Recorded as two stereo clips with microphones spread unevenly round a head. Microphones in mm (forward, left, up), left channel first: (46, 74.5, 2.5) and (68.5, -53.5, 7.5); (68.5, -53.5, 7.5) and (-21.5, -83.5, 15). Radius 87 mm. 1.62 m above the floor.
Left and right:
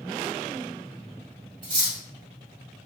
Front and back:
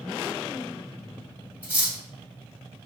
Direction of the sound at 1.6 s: 90° right.